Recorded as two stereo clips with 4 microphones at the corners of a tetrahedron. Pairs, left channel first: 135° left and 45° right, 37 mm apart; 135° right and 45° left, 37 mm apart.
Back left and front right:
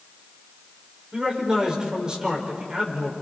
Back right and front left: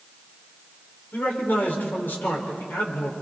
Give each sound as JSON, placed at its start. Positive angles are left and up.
{"t": 1.1, "sound": "a man speaking", "azimuth_deg": -115, "distance_m": 5.0}